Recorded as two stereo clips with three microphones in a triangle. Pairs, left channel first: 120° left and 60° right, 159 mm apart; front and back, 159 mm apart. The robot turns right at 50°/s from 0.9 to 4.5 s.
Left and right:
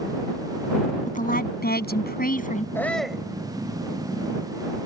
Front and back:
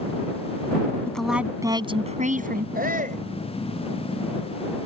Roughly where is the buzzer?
I don't hear a buzzer.